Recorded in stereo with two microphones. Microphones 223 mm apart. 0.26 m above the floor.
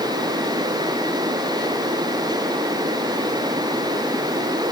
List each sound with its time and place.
Only background noise.